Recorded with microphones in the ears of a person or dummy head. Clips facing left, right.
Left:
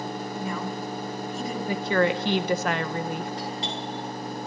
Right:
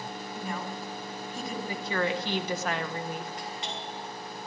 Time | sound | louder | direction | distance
0.3 | a woman speaking | left 3 dB | 70° left (ahead or behind) | 4.5 m
1.7 | a woman speaking | left 7 dB | 55° left (ahead or behind) | 0.8 m
3.4 | a doorbell | left 6 dB | 30° left (ahead or behind) | 2.0 m